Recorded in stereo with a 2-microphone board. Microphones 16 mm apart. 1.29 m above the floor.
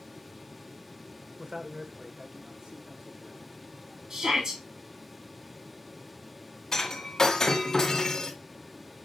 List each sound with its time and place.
1.4 s a man speaking: 60° right (ahead or behind), 1.0 m; by 4.0 s 65° right (ahead or behind), 3 m
4.1 s a shout: 55° right (ahead or behind), 2.5 m
6.7 s breaking glass: 30° left (ahead or behind), 1.8 m